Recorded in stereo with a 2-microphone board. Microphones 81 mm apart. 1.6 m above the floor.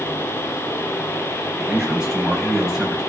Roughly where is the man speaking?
Centre.